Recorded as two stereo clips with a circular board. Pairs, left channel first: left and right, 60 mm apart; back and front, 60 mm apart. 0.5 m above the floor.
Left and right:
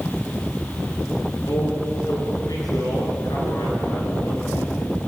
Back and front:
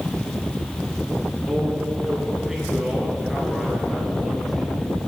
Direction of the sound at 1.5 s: 85° left.